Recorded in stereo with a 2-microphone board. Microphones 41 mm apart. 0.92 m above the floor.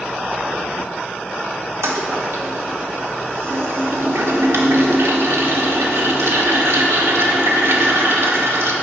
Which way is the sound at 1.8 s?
80° right.